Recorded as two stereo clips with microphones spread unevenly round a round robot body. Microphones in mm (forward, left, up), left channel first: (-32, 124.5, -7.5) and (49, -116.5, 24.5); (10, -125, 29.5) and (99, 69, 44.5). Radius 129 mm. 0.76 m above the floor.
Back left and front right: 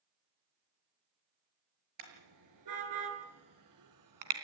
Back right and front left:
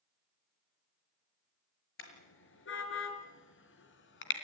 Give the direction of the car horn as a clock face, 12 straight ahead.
3 o'clock.